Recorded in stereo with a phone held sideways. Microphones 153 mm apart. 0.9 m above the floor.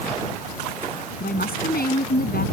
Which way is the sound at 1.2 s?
85° left.